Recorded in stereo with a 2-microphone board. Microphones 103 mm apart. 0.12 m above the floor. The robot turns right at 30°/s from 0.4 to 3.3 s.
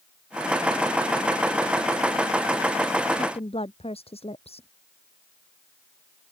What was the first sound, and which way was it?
A woman speaking, 75° left (ahead or behind).